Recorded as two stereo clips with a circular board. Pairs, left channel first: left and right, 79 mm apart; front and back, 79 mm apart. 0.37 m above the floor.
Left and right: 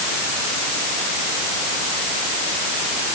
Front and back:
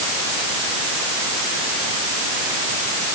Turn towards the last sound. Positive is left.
No sound to turn to.